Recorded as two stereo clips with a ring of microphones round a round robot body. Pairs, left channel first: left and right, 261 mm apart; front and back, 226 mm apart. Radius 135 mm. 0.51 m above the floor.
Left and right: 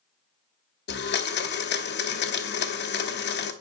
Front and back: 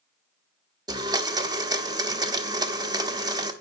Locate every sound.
0.9 s a blender: 115° left, 1.4 m